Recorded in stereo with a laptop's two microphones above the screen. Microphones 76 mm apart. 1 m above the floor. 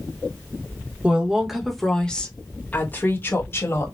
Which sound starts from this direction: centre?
A woman speaking, at 1.0 s.